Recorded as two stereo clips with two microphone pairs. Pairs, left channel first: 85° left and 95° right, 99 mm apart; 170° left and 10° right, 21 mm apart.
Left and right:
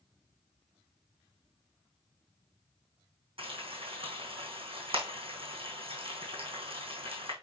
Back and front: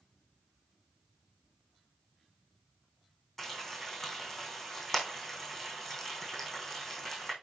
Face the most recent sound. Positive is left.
turn(degrees=-120)